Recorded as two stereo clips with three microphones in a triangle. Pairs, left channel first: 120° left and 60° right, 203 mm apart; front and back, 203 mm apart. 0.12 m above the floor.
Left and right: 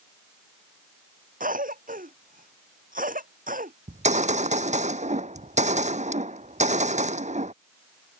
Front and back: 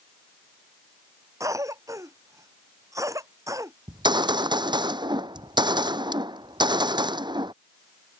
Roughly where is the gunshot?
Right.